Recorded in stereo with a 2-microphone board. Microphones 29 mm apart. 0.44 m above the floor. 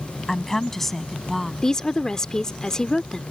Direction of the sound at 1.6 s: 25° left (ahead or behind).